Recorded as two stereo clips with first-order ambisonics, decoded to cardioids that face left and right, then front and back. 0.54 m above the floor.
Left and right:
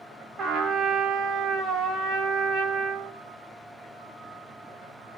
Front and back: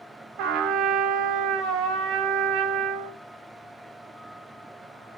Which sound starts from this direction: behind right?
A trumpet, at 0.4 s.